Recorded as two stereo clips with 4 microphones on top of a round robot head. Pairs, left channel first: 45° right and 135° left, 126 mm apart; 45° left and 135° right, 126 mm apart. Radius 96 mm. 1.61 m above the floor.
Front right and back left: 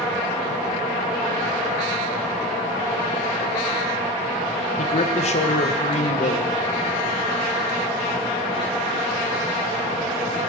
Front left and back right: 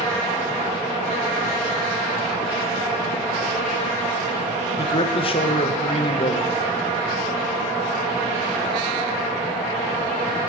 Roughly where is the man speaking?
Ahead.